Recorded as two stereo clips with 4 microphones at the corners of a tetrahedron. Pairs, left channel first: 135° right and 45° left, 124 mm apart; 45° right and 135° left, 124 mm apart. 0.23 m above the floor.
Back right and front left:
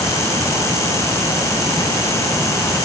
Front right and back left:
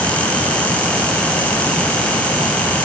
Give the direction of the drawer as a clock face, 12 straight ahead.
I don't hear a drawer.